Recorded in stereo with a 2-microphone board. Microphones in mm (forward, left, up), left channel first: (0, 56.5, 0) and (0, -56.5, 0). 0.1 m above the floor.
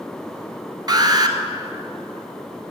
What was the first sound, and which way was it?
An alarm, 35° right (ahead or behind).